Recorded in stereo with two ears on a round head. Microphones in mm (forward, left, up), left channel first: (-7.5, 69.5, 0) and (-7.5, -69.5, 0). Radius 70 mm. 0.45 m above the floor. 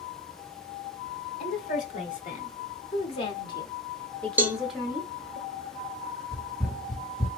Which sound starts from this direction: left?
A woman speaking, at 1.4 s.